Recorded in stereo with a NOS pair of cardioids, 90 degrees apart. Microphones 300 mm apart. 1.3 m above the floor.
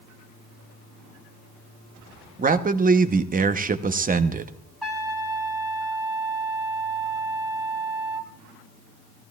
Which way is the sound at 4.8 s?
Straight ahead.